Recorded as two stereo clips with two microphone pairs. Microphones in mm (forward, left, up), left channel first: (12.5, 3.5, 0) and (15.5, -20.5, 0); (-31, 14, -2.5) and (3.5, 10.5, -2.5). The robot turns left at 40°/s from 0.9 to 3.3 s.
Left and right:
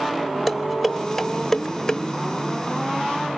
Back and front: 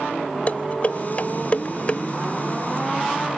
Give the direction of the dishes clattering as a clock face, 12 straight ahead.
6 o'clock.